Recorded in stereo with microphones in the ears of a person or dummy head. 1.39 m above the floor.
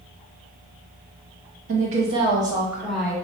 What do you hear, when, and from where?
1.7 s a woman speaking: 45° right (ahead or behind), 1.0 m; by 3.1 s 10° left (ahead or behind), 0.8 m